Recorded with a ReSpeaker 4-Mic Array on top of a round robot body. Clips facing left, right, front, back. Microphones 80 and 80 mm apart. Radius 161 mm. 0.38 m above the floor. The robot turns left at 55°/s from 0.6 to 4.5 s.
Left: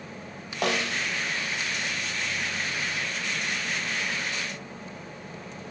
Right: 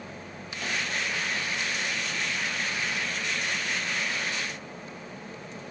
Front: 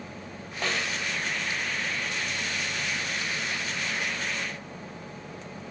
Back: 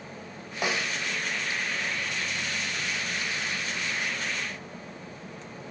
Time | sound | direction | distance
0.6 | a snare drum | 105° left | ?